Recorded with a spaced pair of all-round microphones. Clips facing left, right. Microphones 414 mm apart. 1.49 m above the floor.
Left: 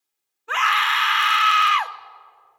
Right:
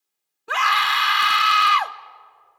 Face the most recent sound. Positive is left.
turn(degrees=-55)  # may be behind; listen again after turning